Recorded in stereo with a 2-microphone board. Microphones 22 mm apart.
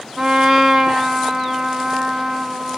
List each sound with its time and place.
0.2 s a trumpet: 25° right (ahead or behind), 0.8 m